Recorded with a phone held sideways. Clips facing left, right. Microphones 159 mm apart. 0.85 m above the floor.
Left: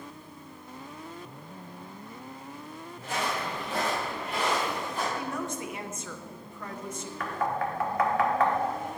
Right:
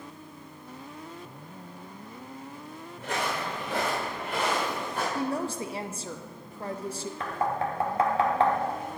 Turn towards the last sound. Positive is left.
turn(degrees=-30)  # may be behind; listen again after turning